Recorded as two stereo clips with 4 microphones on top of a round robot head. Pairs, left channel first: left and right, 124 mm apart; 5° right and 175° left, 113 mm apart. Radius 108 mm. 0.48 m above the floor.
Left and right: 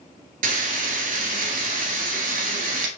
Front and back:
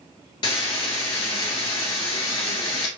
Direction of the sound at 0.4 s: 65° right.